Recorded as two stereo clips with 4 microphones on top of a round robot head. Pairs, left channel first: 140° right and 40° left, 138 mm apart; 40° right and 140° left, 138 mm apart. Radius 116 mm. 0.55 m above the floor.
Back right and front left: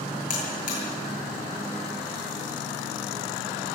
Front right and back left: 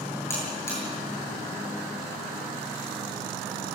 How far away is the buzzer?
About 8 m.